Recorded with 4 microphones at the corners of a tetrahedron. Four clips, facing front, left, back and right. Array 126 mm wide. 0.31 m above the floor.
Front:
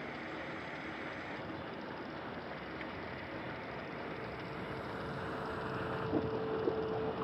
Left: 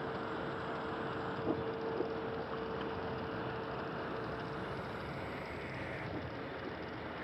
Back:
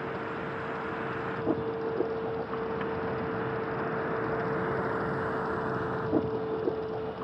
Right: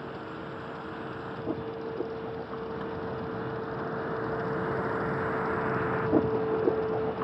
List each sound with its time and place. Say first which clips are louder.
0.0 s a vehicle: right 1 dB, back 9 dB; 175° left; by 7.2 s 90° right